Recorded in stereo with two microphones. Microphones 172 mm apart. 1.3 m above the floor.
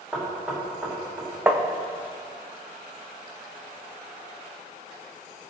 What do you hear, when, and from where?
0.1 s knocking: 5° right (ahead or behind), 3 m
1.5 s tapping: 10° right (ahead or behind), 0.8 m